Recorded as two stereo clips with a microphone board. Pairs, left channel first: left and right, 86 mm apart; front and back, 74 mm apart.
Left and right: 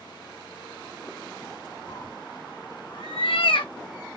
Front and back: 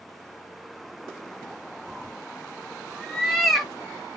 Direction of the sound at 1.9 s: 90° left.